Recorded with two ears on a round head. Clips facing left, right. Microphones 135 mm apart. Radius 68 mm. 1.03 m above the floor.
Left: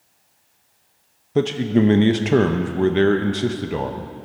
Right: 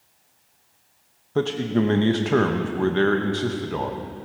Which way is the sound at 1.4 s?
20° left (ahead or behind).